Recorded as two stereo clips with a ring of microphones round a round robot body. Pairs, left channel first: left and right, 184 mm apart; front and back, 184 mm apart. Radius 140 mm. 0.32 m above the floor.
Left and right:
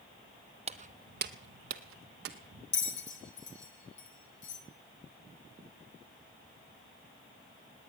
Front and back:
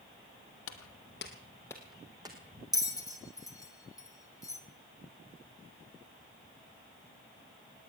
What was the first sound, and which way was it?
Footsteps, 30° right.